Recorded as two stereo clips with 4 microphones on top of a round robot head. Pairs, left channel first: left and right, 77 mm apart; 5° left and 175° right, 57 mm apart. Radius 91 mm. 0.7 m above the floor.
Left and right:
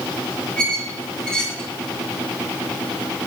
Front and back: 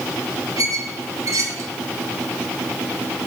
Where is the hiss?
I don't hear a hiss.